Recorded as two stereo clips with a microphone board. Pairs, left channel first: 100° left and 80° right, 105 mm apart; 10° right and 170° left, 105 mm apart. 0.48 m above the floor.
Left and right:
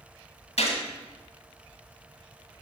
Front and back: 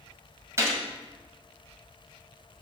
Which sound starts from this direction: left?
A gunshot, at 0.6 s.